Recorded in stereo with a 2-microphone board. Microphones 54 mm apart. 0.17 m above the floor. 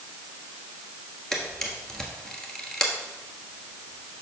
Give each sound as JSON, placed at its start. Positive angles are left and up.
{"t": 1.3, "sound": "a camera shutter", "side_deg": 5, "distance_m": 1.2}